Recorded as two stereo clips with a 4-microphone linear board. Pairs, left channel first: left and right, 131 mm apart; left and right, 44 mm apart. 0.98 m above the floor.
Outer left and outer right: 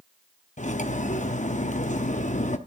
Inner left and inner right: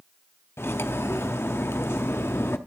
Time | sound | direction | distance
0.6 | cutlery clinking | 70° left (ahead or behind) | 0.7 m